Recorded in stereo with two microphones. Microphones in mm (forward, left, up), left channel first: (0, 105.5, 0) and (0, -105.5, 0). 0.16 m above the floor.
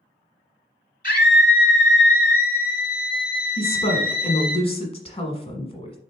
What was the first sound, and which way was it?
A scream, 35° left (ahead or behind).